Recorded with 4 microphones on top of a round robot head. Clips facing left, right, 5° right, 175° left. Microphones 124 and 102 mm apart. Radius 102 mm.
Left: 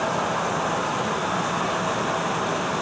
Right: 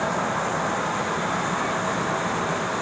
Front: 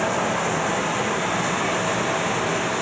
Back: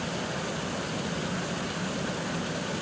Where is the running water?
5° left.